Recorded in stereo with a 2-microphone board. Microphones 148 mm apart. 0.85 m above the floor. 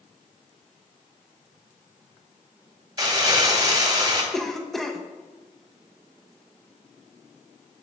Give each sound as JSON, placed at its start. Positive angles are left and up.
{"t": 3.0, "sound": "crumpling", "side_deg": -30, "distance_m": 1.2}
{"t": 4.3, "sound": "a cough", "side_deg": 0, "distance_m": 0.8}